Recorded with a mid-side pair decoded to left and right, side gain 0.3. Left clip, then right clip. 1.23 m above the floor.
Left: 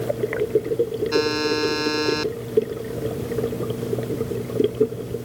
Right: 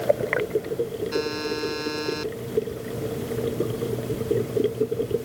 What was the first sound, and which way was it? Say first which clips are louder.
A buzzer: left 8 dB; 65° left.